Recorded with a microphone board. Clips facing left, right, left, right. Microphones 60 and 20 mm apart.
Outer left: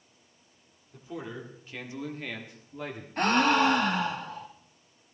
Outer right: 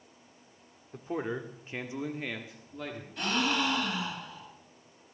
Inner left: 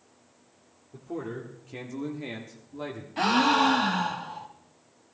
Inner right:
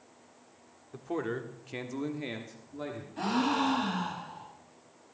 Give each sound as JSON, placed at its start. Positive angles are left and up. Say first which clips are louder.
{"t": 0.9, "sound": "a man speaking", "louder": "outer right 5 dB, inner right 2 dB", "side_deg": -40, "distance_m": 1.8}
{"t": 3.2, "sound": "a gasp", "louder": "outer left 7 dB, inner left 7 dB", "side_deg": 50, "distance_m": 1.7}